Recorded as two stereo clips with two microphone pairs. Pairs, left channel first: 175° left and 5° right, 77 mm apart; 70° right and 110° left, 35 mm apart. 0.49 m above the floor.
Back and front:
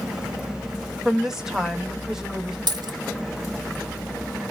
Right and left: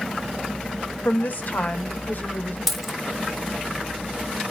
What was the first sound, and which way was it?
A woman speaking, 85° right.